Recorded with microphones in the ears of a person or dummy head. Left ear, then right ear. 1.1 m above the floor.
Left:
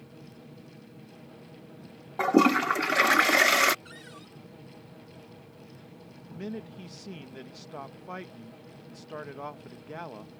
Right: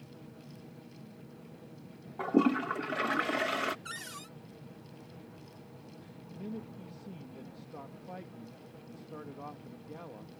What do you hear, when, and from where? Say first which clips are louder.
2.2 s a toilet flushing: left 7 dB; 65° left (ahead or behind)
3.9 s a cupboard door: right 4 dB; 35° right (ahead or behind)
6.3 s a man speaking: left 5 dB; 55° left (ahead or behind)